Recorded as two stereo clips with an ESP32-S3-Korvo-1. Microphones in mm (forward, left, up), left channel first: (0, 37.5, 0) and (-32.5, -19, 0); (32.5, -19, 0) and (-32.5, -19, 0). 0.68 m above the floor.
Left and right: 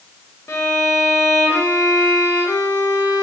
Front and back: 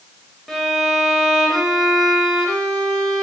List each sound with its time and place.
0.5 s a violin: 85° left, 0.6 m